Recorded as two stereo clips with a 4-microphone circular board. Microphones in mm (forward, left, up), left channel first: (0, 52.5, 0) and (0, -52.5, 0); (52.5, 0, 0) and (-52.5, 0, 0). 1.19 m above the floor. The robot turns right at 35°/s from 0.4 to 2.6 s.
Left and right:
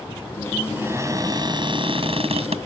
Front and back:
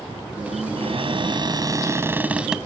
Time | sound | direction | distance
0.8 | a cupboard door | 160° right | ?